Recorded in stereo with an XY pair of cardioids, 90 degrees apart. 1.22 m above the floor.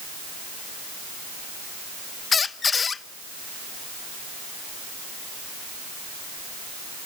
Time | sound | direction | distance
2.3 | a squeak | 45° left | 0.8 m